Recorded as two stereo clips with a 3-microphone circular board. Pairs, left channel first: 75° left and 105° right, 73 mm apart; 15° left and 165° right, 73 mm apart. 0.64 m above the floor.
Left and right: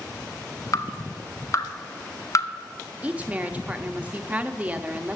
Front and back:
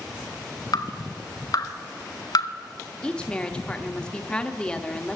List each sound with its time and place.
0.7 s dripping: 35° left, 1.2 m
3.0 s a woman speaking: 50° right, 0.8 m